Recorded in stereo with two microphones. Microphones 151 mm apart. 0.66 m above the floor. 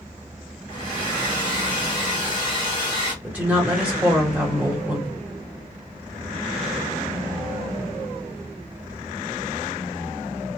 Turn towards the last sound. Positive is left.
turn(degrees=-10)  # may be behind; listen again after turning